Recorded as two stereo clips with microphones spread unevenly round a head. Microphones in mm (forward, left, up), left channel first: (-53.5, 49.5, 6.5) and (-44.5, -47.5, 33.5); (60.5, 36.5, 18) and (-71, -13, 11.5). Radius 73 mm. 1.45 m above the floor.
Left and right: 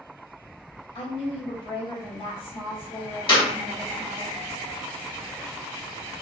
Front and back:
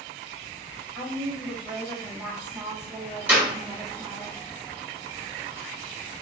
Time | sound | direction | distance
0.9 | a woman speaking | 115° left | 1.1 m
3.3 | a clap | 125° left | 1.5 m